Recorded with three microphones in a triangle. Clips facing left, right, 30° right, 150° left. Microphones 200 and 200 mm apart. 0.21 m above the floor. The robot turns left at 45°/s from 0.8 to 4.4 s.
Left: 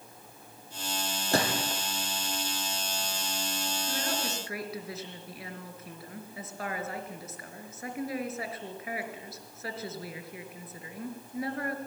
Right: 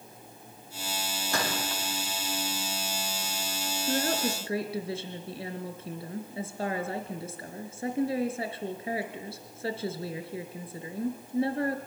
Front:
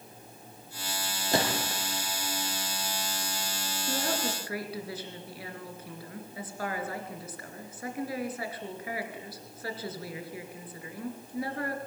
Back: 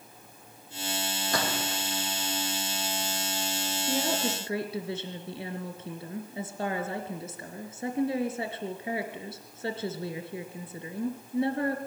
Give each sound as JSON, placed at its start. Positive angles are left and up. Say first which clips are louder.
{"t": 1.3, "sound": "a gunshot", "louder": "left 4 dB, front 3 dB", "azimuth_deg": 35, "distance_m": 5.5}
{"t": 3.9, "sound": "a woman speaking", "louder": "right 8 dB, back 2 dB", "azimuth_deg": -125, "distance_m": 3.5}